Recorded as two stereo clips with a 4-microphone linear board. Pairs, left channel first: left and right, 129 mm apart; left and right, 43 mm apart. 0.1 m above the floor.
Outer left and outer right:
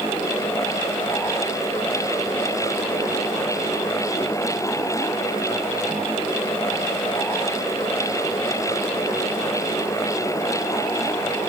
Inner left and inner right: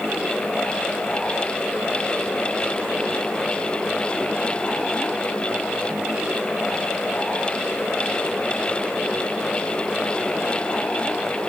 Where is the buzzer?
I don't hear a buzzer.